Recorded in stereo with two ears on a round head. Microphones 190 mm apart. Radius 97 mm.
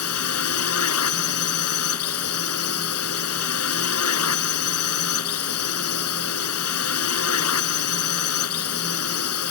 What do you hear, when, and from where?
0.0 s a drone: 80° left